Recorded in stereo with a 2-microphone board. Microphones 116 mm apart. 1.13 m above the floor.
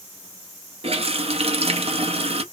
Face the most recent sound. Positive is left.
turn(degrees=-60)  # may be behind; listen again after turning